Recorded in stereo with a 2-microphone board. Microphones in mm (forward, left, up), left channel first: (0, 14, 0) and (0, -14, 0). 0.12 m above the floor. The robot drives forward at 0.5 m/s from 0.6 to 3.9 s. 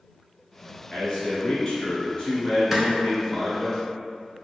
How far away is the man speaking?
About 1.3 m.